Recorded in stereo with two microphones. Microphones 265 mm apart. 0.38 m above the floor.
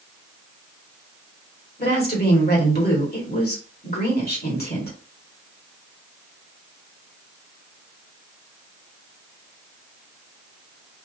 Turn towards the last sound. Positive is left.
turn(degrees=35)  # may be behind; listen again after turning